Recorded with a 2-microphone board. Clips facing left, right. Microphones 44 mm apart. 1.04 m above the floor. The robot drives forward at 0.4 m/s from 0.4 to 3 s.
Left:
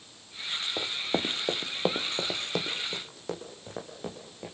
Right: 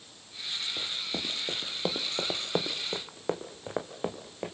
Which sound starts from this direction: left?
Running footsteps, at 0.8 s.